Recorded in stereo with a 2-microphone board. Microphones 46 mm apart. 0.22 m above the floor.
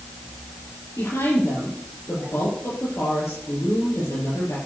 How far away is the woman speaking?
About 6.5 m.